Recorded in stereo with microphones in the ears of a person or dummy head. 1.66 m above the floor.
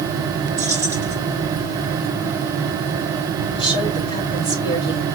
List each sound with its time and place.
0.6 s keys jangling: 20° left (ahead or behind), 2.5 m
3.5 s a woman speaking: 30° left (ahead or behind), 2.5 m